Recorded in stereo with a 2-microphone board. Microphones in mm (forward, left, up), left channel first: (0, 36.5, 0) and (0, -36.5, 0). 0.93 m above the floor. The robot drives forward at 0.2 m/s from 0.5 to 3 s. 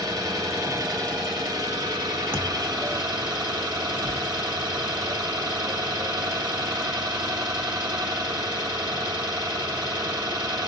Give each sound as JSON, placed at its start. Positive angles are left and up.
{"t": 0.0, "sound": "an engine running", "side_deg": -60, "distance_m": 2.5}
{"t": 2.3, "sound": "a thud", "side_deg": 15, "distance_m": 1.4}